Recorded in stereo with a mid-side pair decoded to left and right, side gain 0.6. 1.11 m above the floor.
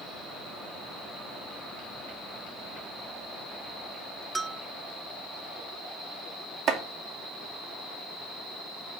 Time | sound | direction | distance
4.3 | a bell | 20° right | 0.6 m
6.7 | chopping | 60° right | 2 m